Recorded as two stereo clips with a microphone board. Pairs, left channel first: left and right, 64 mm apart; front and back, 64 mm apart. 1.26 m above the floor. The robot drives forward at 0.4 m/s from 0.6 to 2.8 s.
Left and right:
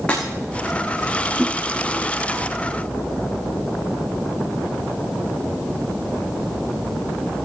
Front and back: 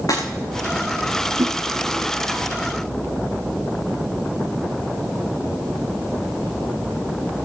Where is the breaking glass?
20° left, 9.5 m.